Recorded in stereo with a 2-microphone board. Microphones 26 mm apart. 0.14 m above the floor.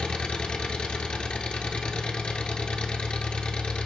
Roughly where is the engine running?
Left.